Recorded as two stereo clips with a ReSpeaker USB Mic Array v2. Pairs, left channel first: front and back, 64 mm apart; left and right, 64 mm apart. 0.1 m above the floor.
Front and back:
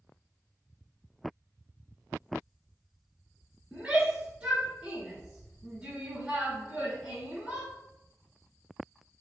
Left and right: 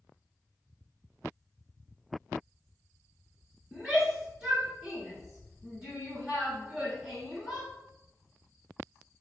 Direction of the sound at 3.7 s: 155° right.